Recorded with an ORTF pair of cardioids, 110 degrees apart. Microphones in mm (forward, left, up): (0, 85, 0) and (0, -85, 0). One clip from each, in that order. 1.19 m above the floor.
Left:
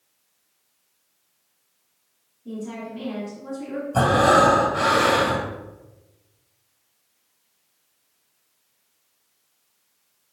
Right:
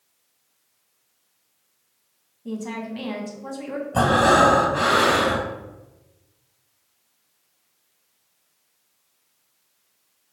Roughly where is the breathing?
Ahead.